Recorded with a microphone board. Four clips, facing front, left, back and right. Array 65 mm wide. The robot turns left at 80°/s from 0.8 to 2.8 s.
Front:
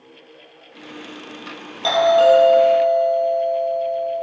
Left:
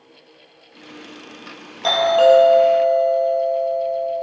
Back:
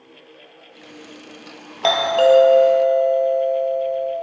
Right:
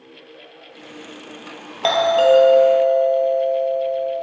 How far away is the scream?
No scream in this recording.